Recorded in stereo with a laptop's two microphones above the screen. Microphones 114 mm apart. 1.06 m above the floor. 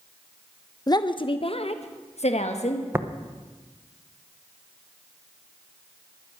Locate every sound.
0.9 s a woman speaking: 35° left (ahead or behind), 0.8 m; by 2.8 s 80° left, 1.4 m
2.9 s tapping: 20° right (ahead or behind), 0.6 m